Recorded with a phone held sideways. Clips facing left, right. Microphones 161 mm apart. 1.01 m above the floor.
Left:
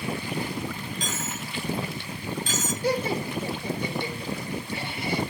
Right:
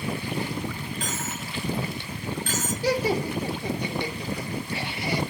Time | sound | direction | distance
1.0 | a dropped coin | 60° right (ahead or behind) | 9.5 m
2.8 | laughter | 75° right (ahead or behind) | 2.5 m